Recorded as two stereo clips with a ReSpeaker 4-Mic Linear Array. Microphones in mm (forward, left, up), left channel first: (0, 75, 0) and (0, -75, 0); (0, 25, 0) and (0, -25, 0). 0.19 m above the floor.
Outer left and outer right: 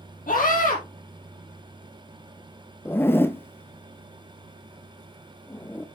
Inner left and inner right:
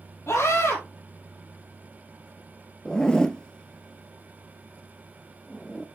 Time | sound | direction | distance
0.3 | a scream | 65° left (ahead or behind) | 6.5 m
2.9 | a zipper | 15° left (ahead or behind) | 0.6 m